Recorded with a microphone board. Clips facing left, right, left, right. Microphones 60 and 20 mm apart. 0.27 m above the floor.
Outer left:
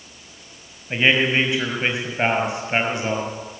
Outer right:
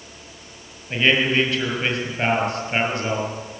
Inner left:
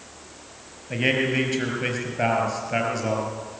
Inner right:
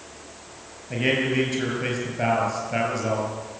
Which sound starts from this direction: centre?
A man speaking, at 0.9 s.